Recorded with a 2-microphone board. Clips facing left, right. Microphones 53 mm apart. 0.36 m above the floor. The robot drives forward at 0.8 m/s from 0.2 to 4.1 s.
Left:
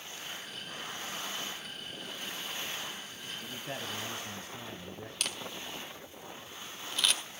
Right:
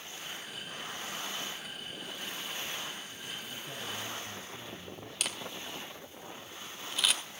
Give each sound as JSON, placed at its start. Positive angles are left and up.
{"t": 3.4, "sound": "a man speaking", "side_deg": 65, "distance_m": 1.8}
{"t": 5.2, "sound": "a camera shutter", "side_deg": -5, "distance_m": 1.5}